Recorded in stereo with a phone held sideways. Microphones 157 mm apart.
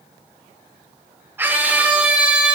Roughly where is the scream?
Centre.